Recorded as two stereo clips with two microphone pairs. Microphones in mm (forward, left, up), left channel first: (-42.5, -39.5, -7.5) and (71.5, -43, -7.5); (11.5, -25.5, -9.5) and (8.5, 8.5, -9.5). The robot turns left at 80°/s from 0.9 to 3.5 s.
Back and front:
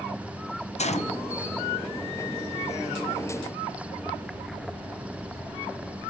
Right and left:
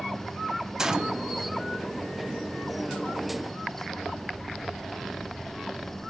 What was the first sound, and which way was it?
A gunshot, 170° left.